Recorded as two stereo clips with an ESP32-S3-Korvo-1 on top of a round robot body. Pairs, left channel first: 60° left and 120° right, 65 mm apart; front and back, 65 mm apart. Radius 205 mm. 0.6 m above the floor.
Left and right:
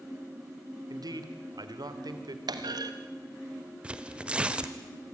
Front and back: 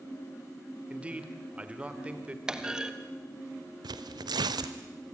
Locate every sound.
0.9 s a man speaking: 110° right, 2.5 m
2.5 s a clunk: 100° right, 1.2 m
3.8 s tearing paper: 165° left, 0.7 m